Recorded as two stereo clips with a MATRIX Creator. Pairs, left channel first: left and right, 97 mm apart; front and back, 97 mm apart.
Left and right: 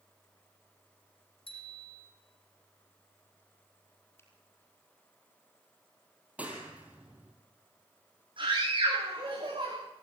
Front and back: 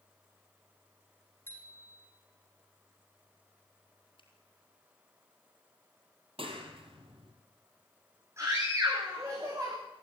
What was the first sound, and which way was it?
A bicycle bell, 70° left.